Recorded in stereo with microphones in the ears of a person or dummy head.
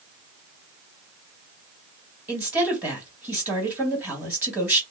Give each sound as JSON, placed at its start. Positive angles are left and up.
{"t": 2.3, "sound": "a woman speaking", "side_deg": -10, "distance_m": 1.5}